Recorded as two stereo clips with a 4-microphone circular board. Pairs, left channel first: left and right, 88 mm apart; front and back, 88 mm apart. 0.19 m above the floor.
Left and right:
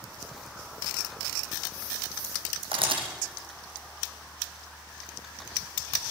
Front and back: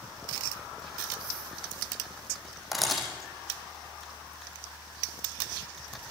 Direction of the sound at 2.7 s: 90° right.